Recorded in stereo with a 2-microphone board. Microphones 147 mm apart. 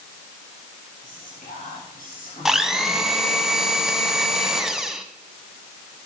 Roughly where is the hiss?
I don't hear a hiss.